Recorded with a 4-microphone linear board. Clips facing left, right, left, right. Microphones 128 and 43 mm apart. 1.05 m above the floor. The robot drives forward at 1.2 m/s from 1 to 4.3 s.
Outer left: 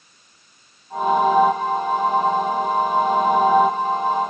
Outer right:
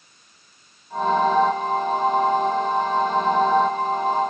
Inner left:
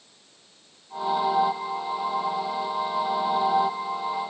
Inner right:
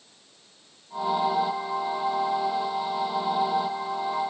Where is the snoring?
No snoring in this recording.